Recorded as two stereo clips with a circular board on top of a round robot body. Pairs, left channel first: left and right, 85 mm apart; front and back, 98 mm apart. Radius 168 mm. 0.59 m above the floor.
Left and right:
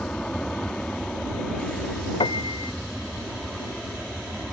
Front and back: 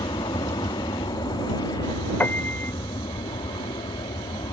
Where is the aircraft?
15° left; by 4.5 s straight ahead.